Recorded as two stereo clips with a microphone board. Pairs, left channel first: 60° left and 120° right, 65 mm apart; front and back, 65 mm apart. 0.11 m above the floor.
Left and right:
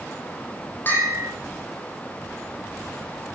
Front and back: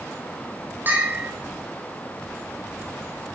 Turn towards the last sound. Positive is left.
turn(degrees=120)